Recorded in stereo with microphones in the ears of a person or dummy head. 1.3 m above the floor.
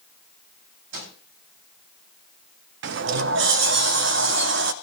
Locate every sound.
0.9 s a microwave: 90° right, 8 m
2.8 s a sliding door: 65° right (ahead or behind), 0.7 m